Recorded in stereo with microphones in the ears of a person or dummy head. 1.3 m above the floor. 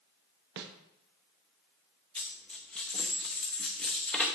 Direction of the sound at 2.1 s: 5° left (ahead or behind).